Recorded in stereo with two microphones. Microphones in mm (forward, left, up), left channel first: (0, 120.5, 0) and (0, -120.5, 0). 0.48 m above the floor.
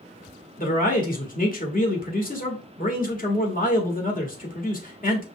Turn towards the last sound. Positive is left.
turn(degrees=35)  # may be behind; listen again after turning